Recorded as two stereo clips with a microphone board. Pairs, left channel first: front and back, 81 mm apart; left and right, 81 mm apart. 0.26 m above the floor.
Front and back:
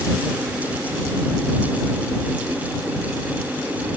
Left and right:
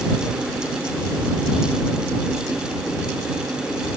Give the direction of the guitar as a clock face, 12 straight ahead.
I don't hear a guitar.